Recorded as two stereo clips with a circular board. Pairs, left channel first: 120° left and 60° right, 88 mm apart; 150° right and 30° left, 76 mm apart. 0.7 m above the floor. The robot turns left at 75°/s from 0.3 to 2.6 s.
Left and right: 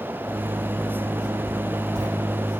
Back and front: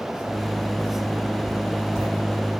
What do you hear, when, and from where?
1.5 s writing: 5° left, 3.5 m; by 2.1 s 40° right, 3.5 m